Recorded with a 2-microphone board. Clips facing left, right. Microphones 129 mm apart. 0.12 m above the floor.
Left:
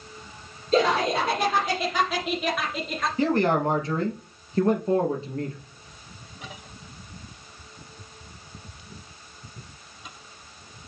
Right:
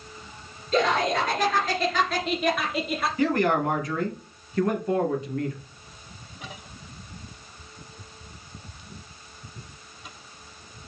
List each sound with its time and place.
0.7 s laughter: 35° left (ahead or behind), 2.5 m; by 3.1 s 5° right (ahead or behind), 2 m
3.2 s a man speaking: 30° left (ahead or behind), 2.5 m